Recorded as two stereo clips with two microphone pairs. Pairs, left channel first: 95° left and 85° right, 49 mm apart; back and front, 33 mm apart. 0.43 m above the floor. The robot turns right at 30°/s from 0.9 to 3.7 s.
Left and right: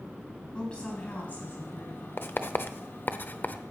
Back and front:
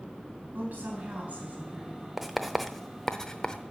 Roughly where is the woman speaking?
Ahead left.